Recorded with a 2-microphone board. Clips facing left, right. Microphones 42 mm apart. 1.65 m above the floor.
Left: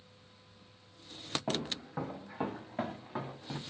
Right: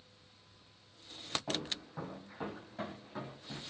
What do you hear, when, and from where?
1.5 s footsteps: 35° left (ahead or behind), 5.5 m; by 3.6 s 45° left (ahead or behind), 6 m